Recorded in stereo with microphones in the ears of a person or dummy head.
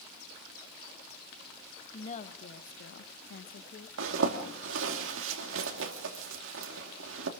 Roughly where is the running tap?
I don't hear a running tap.